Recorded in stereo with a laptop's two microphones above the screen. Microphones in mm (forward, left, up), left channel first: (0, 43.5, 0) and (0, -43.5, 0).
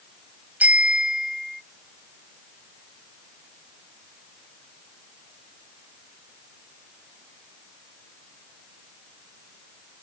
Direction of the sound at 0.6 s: 15° right (ahead or behind).